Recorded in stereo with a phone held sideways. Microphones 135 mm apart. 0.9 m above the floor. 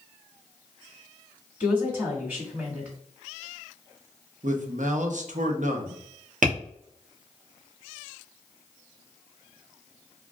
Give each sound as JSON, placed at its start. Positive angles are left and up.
{"t": 1.6, "sound": "a woman speaking", "side_deg": -15, "distance_m": 1.6}
{"t": 4.4, "sound": "a man speaking", "side_deg": -65, "distance_m": 0.7}
{"t": 6.4, "sound": "tapping", "side_deg": -75, "distance_m": 1.0}